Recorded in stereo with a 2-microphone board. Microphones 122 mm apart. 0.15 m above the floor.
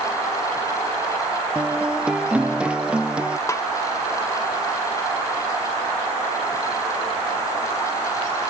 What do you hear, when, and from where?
1.6 s a guitar: 10° right (ahead or behind)
3.5 s a snare drum: 25° left (ahead or behind)